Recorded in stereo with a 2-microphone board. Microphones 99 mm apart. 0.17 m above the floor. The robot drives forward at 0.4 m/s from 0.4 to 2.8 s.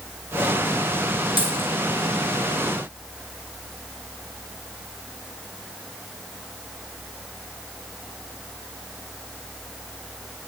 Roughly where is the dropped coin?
Right.